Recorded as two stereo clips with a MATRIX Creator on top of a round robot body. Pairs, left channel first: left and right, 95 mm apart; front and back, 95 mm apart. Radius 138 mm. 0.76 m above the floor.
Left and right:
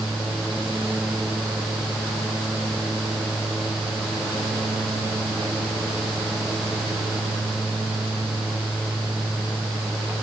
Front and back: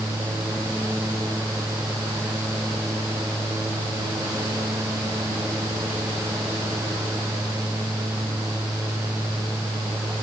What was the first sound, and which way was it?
Only background noise.